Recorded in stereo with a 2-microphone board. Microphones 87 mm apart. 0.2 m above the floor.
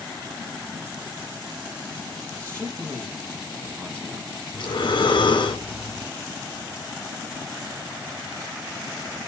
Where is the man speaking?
30° right (ahead or behind), 6.5 m.